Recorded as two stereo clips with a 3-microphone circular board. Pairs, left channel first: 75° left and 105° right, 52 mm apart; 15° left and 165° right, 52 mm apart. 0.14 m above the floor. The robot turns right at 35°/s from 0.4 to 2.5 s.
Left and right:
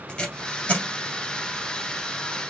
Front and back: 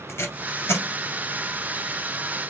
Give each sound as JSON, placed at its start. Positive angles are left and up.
{"t": 0.1, "sound": "tape being pulled", "azimuth_deg": 5, "distance_m": 1.8}